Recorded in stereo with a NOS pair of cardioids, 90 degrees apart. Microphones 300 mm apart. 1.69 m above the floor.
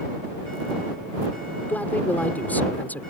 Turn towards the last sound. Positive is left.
turn(degrees=5)